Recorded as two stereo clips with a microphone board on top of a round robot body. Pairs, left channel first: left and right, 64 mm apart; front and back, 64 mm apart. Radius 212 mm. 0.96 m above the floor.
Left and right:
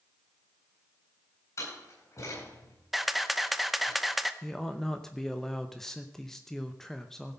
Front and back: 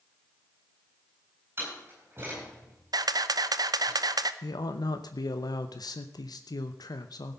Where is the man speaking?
5° left, 0.8 m.